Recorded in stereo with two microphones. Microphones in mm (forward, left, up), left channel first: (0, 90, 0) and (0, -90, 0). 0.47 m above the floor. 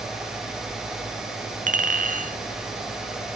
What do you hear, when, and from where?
1.7 s a clink: 45° right (ahead or behind), 0.5 m